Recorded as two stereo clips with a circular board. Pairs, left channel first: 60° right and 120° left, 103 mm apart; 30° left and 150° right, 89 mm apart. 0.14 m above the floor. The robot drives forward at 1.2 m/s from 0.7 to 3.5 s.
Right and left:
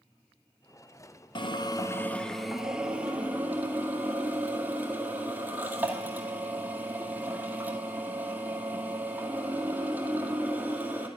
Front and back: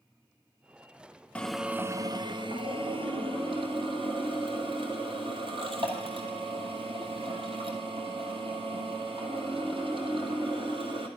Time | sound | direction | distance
1.4 | a drill | 45° right | 0.9 m